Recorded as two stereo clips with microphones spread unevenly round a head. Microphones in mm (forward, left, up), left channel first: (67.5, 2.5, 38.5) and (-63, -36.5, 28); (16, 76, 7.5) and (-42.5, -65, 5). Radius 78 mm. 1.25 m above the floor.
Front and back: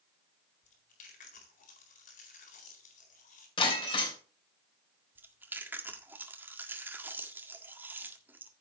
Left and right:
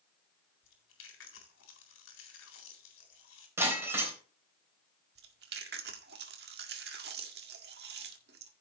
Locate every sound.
0.6 s chewing: 55° left, 4 m
3.6 s breaking glass: 35° right, 3 m
5.2 s chewing: 85° right, 1.7 m